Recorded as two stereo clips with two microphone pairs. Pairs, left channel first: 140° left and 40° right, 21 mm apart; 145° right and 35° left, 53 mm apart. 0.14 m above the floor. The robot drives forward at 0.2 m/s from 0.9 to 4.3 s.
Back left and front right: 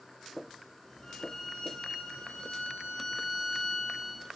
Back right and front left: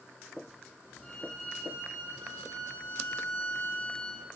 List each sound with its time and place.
1.0 s a violin: 160° left, 0.9 m; by 4.2 s 170° left, 1.4 m